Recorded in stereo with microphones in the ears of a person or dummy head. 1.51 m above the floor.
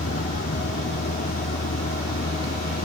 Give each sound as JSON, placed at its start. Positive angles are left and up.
{"t": 0.0, "sound": "a vehicle", "side_deg": 50}